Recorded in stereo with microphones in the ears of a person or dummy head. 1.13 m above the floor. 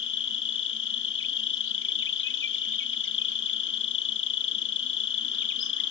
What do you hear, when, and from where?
0.0 s an insect: 65° left (ahead or behind)